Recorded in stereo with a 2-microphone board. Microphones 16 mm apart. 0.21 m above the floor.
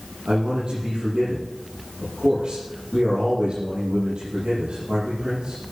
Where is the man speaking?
80° right, 8 m.